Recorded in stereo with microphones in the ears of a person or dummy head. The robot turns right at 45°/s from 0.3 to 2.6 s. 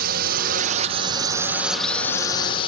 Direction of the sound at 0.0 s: 70° right.